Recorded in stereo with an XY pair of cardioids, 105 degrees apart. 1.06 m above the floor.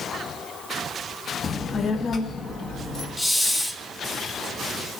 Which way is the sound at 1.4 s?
35° left.